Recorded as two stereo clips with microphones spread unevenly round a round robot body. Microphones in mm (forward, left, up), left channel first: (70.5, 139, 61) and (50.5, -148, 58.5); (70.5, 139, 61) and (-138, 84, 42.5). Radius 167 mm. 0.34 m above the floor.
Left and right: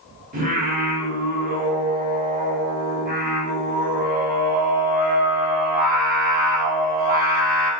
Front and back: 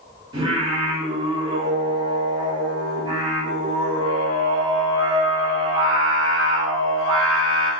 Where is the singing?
125° right, 1.2 m.